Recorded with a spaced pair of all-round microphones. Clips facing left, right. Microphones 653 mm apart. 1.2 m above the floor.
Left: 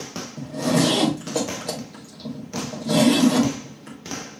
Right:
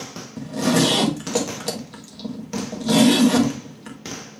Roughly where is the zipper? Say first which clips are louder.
Right 2 dB; right.